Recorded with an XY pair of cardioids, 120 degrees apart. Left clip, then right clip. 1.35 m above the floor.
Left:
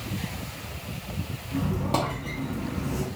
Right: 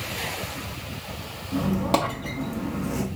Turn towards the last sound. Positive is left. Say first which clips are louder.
# right 4 dB
turn(degrees=-50)